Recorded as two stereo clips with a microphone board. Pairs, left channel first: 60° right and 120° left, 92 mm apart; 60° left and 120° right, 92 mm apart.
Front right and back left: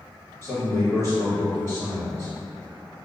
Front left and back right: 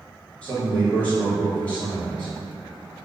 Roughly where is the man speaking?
Ahead.